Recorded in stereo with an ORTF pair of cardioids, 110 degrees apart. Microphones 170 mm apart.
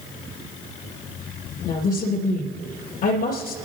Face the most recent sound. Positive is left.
turn(degrees=60)